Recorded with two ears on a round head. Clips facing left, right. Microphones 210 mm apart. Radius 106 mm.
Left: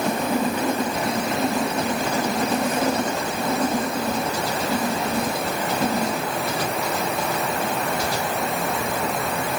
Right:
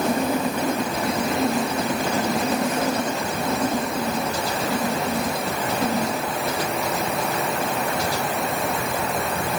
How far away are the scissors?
No scissors in this recording.